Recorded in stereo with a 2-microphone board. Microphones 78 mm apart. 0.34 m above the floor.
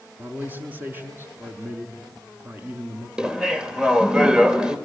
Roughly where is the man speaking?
Right.